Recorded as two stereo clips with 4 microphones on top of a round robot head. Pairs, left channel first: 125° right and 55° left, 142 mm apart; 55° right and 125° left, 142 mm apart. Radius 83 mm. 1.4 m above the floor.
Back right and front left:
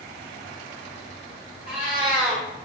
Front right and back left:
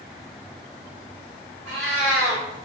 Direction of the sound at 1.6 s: 135° left.